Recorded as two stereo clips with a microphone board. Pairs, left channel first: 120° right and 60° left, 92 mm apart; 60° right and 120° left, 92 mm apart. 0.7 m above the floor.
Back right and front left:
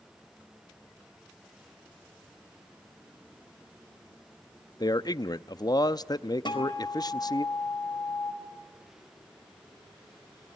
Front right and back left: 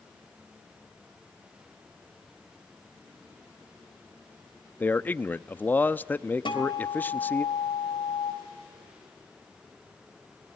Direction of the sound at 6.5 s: 85° right.